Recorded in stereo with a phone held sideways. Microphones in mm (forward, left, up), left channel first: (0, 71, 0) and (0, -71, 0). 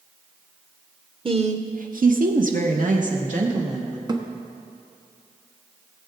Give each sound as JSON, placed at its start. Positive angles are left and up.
{"t": 1.2, "sound": "a woman speaking", "side_deg": -35, "distance_m": 0.7}
{"t": 4.1, "sound": "a thud", "side_deg": -30, "distance_m": 1.1}